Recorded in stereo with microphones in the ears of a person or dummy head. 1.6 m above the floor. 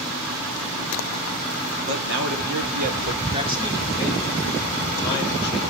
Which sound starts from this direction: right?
A man speaking, at 1.9 s.